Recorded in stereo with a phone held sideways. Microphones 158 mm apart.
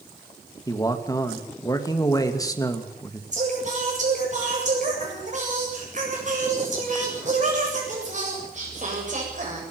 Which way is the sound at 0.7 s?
20° left (ahead or behind).